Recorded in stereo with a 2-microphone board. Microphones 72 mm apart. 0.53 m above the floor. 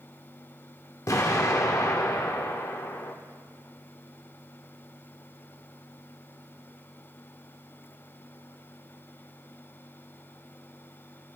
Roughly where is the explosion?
Left.